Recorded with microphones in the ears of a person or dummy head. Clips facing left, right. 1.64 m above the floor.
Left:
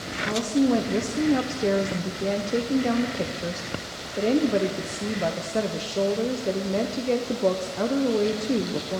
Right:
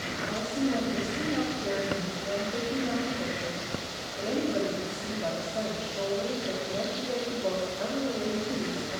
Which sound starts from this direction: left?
A woman speaking, at 0.2 s.